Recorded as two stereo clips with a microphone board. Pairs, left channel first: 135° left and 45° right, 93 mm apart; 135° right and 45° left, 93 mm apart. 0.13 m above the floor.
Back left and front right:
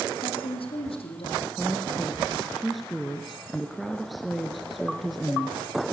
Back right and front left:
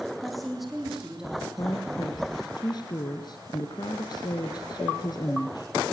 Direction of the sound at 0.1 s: 135° left.